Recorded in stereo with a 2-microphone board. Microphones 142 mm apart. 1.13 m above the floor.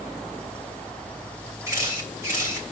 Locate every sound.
1.7 s a camera shutter: 20° right (ahead or behind), 3 m